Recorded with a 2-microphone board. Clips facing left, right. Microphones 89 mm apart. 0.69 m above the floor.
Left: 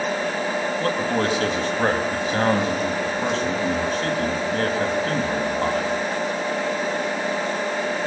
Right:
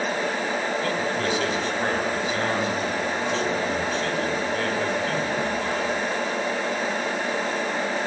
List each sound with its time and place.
0.8 s a man speaking: 45° left (ahead or behind), 4.5 m